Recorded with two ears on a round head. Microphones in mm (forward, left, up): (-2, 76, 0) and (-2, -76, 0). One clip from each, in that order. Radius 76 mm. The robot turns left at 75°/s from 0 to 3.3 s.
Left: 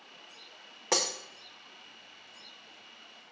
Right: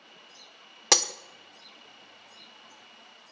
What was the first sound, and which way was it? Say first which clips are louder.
Breaking glass: right 6 dB; 70° right (ahead or behind).